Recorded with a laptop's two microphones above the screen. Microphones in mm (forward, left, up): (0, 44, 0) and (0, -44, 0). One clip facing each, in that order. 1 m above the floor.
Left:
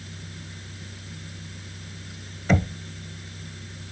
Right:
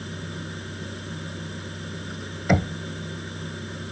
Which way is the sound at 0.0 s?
55° right (ahead or behind).